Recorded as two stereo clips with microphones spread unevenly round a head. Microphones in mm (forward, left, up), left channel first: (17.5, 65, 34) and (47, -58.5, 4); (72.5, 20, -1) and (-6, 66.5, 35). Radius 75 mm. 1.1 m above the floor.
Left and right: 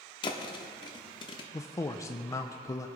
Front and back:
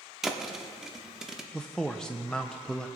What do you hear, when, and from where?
0.2 s a thud: 85° left, 0.8 m
1.5 s a man speaking: 30° left, 0.5 m